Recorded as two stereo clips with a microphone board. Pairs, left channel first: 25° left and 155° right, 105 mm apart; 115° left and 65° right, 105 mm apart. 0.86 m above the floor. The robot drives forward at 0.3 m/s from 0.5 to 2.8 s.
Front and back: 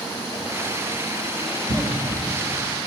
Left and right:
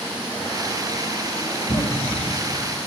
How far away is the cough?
About 3 m.